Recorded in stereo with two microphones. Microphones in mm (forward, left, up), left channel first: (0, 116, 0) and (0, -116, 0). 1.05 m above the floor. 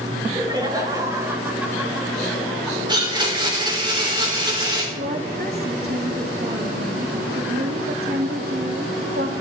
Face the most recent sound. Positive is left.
turn(degrees=-45)  # may be behind; listen again after turning